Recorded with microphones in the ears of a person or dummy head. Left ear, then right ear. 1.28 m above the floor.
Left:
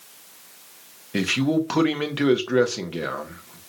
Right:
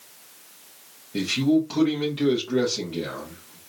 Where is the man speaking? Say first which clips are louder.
Even; 40° left (ahead or behind), 0.6 m.